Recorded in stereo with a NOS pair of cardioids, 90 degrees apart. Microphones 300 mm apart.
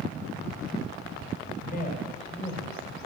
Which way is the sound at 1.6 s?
30° left.